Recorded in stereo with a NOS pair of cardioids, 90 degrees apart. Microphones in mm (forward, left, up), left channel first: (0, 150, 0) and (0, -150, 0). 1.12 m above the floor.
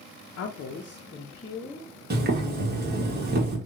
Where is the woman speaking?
55° left, 0.8 m; by 1.9 s 10° left, 1.3 m.